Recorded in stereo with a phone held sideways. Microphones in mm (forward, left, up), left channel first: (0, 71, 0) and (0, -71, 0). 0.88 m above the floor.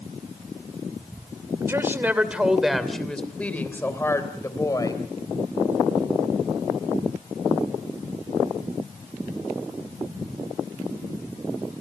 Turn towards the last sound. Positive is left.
turn(degrees=25)  # may be behind; listen again after turning